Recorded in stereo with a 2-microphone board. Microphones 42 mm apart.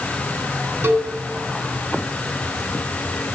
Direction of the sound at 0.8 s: 65° right (ahead or behind).